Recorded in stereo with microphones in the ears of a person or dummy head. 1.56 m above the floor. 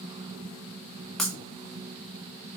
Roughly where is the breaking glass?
Centre.